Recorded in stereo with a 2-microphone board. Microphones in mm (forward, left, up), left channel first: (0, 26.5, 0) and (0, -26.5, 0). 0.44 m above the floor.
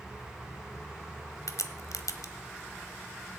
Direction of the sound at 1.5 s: 75° left (ahead or behind).